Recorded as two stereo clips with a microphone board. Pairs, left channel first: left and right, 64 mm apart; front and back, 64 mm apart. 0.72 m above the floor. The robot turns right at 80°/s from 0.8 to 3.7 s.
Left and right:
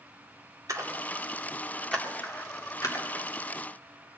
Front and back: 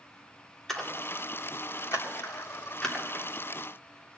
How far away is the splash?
About 2.5 m.